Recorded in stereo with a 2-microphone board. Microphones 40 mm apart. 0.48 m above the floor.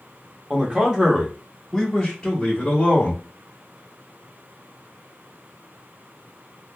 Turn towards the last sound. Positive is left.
turn(degrees=35)  # may be behind; listen again after turning